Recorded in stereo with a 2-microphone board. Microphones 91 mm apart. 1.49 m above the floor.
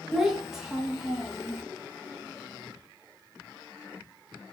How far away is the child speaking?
About 1.3 m.